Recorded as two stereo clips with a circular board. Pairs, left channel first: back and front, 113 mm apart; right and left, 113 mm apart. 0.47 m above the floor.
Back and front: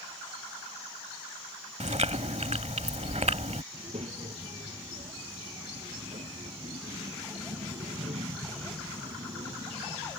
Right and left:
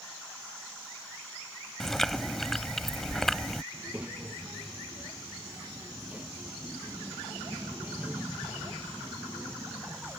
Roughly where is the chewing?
Ahead.